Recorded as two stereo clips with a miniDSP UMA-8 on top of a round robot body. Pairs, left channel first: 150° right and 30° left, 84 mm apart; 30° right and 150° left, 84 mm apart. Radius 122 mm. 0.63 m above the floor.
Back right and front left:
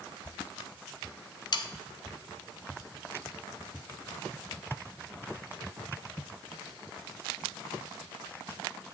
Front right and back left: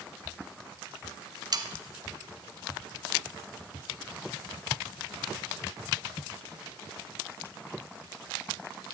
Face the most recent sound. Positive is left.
turn(degrees=-175)